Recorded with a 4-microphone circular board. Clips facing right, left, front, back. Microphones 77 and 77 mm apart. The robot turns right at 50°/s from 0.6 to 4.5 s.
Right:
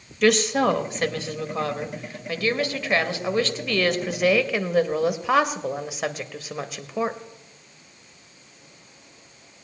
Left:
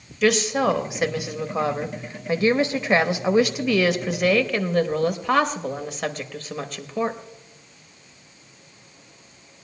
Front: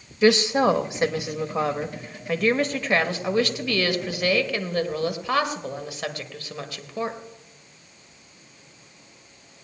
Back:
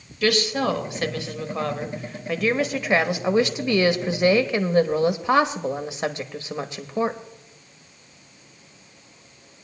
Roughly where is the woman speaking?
Ahead.